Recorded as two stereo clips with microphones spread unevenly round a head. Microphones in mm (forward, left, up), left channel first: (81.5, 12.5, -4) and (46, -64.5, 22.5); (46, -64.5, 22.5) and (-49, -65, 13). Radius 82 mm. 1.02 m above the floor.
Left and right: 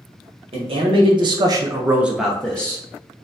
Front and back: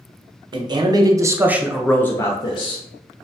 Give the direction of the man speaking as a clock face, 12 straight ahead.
5 o'clock.